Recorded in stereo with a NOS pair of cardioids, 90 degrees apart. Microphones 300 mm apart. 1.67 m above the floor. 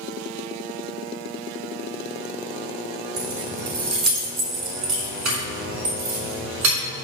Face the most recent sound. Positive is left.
turn(degrees=-70)